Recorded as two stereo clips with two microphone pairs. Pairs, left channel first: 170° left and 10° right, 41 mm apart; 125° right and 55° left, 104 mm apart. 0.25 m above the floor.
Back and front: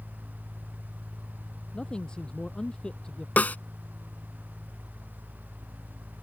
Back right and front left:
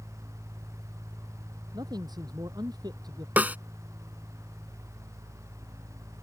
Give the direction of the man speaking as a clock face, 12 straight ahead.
9 o'clock.